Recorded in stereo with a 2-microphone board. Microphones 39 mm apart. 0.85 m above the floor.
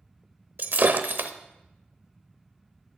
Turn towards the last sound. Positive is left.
turn(degrees=-55)  # may be behind; listen again after turning